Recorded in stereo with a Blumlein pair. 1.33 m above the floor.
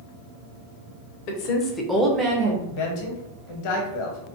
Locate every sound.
1.3 s a woman speaking: 45° left, 0.7 m; by 2.6 s 40° right, 0.7 m
2.7 s a man speaking: 45° left, 0.8 m